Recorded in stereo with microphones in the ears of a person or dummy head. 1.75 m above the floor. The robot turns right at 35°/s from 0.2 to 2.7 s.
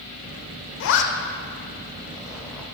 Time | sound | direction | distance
0.8 | a zipper | 70° left (ahead or behind) | 0.5 m